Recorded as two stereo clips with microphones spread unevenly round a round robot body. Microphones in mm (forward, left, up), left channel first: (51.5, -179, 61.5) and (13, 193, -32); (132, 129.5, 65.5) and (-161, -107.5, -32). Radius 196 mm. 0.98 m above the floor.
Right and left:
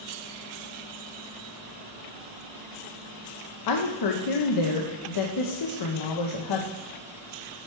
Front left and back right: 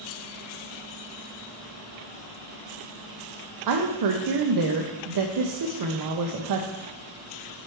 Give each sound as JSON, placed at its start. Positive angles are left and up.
{"t": 3.7, "sound": "a woman speaking", "azimuth_deg": -125, "distance_m": 0.7}